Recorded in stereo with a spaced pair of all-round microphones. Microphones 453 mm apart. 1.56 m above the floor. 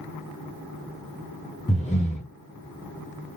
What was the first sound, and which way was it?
Breathing, 15° left (ahead or behind).